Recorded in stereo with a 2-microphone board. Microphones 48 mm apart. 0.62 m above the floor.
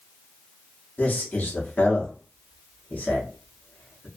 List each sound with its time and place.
1.0 s a man speaking: 35° left (ahead or behind), 0.9 m